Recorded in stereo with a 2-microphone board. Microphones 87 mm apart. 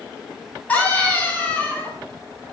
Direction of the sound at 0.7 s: 20° left (ahead or behind).